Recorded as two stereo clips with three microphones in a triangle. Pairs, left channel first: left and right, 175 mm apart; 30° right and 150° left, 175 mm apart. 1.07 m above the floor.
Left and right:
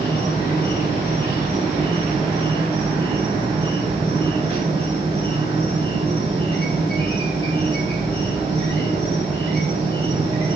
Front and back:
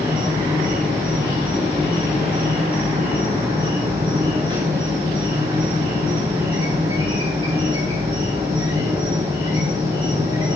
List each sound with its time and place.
0.0 s an insect: 150° right, 3.5 m